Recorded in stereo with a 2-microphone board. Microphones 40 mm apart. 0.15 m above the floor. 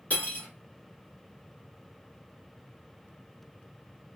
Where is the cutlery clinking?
40° left (ahead or behind), 1.2 m.